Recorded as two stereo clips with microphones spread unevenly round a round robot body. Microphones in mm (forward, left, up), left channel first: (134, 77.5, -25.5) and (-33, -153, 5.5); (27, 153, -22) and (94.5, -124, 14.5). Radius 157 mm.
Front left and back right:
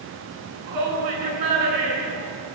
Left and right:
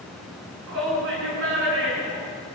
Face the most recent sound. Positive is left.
turn(degrees=-135)